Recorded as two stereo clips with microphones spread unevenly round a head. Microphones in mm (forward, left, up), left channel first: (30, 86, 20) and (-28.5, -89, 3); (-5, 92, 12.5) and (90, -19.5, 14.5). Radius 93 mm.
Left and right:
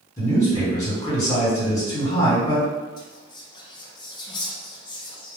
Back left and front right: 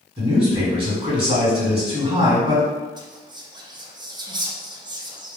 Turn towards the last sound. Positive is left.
turn(degrees=10)